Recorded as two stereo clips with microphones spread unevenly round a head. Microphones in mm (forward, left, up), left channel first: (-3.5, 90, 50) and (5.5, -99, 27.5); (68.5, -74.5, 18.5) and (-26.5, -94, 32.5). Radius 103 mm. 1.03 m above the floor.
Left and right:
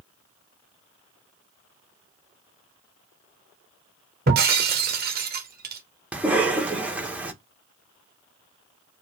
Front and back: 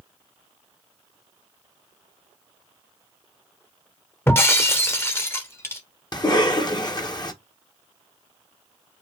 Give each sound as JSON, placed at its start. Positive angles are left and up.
{"t": 4.3, "sound": "breaking glass", "azimuth_deg": -55, "distance_m": 0.9}
{"t": 6.1, "sound": "a cough", "azimuth_deg": -10, "distance_m": 1.3}